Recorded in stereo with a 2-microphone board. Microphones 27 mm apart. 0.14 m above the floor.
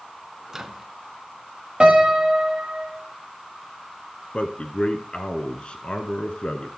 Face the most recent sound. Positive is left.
turn(degrees=40)  # may be behind; listen again after turning